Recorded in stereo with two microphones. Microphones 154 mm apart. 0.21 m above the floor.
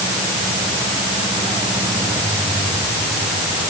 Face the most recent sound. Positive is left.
No sound to turn to.